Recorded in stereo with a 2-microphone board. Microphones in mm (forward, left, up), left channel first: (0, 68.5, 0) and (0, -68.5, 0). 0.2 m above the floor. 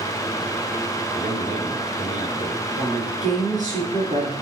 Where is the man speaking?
60° right (ahead or behind), 3 m.